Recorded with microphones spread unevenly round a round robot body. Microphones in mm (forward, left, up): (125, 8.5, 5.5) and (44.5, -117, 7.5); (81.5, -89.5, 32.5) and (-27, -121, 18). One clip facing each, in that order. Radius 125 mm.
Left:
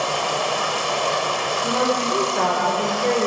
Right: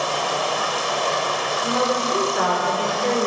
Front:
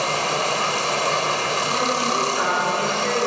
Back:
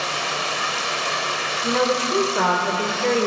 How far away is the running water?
About 1.1 m.